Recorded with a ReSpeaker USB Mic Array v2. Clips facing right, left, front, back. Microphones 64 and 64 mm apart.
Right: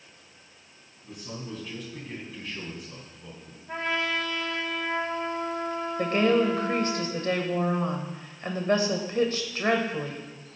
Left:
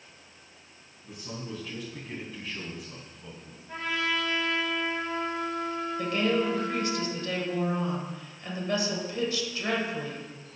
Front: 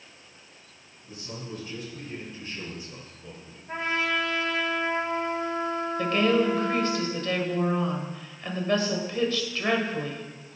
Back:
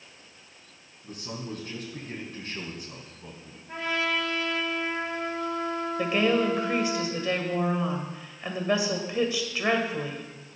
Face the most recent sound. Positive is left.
turn(degrees=-110)